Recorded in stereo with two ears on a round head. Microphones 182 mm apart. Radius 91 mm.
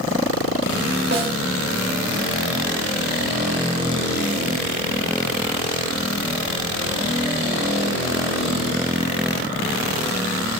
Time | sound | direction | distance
1.1 | a snare drum | 50° right (ahead or behind) | 3 m